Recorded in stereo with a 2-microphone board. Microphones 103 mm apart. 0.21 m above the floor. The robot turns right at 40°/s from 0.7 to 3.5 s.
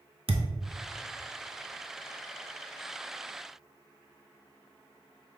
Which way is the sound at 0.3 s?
65° right (ahead or behind).